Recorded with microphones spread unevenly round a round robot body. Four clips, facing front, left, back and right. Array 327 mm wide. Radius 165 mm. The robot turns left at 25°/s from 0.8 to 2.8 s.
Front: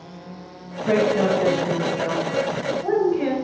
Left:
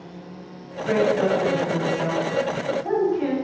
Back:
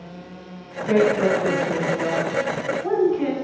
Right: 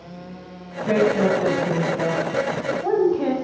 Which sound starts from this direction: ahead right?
A woman speaking, at 0.9 s.